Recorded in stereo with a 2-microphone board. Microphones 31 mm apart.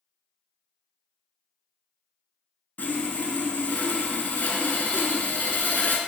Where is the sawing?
80° left, 0.5 m.